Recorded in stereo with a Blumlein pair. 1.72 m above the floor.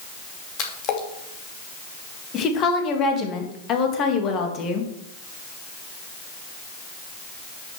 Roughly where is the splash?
Ahead left.